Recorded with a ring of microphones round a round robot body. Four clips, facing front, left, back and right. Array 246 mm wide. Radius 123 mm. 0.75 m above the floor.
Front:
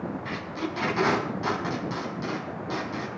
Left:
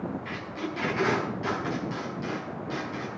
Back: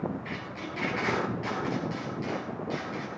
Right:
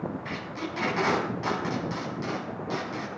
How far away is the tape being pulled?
About 5.5 m.